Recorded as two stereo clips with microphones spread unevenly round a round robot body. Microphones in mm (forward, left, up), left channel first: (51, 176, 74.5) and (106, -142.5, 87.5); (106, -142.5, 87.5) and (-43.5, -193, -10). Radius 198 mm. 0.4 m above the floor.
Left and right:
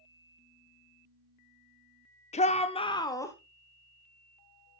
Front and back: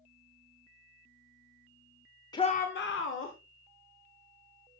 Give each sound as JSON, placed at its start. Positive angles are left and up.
{"t": 2.3, "sound": "a shout", "azimuth_deg": 130, "distance_m": 0.8}